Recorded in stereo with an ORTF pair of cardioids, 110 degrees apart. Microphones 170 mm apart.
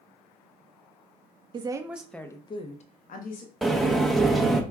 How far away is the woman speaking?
About 0.6 m.